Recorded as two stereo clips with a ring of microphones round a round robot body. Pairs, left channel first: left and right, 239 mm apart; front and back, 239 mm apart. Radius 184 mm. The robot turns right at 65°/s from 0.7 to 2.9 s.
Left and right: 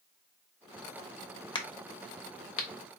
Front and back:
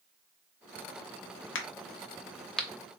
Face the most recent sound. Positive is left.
turn(degrees=110)